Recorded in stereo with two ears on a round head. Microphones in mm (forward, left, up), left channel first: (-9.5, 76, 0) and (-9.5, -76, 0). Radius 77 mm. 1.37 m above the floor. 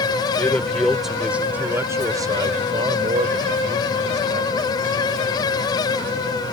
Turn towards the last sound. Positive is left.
turn(degrees=-55)  # may be behind; listen again after turning